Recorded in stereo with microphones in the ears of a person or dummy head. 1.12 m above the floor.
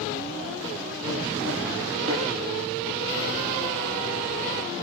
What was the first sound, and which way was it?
A thud, 80° right.